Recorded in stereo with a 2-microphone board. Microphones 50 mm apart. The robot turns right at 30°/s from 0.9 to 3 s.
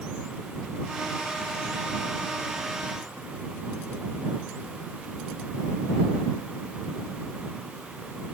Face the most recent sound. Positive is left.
No sound to turn to.